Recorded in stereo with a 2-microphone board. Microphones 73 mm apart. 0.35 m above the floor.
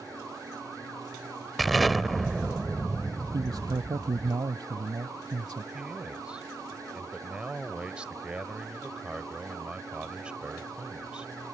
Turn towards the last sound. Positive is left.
turn(degrees=-15)  # may be behind; listen again after turning